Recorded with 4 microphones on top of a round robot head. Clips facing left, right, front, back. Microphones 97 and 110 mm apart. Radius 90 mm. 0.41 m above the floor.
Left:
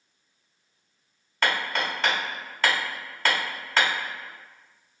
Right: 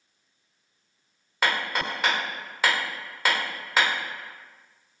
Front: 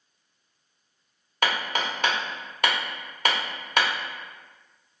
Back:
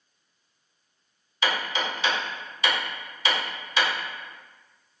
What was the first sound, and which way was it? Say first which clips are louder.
Hammering: even, front 1 dB; 5° right.